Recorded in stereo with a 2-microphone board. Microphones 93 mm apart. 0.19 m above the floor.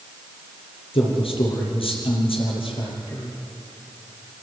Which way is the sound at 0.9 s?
75° left (ahead or behind).